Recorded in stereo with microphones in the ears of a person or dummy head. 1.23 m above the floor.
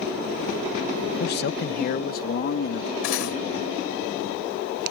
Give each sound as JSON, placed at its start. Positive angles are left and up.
{"t": 1.2, "sound": "a man speaking", "side_deg": 50}
{"t": 3.0, "sound": "cutlery clinking", "side_deg": 80}